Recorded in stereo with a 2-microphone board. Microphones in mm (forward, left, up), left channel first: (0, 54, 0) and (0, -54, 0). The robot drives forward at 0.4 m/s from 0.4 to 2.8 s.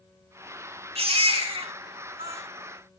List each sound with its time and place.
0.9 s a baby crying: 70° right (ahead or behind), 5 m; by 2.4 s 65° right (ahead or behind), 5.5 m